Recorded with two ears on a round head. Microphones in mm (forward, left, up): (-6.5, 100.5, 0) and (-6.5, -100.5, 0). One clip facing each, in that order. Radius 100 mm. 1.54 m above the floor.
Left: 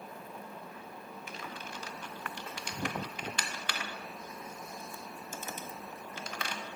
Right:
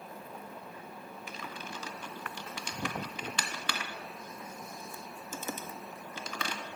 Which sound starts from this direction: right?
Typing on a keyboard, at 1.3 s.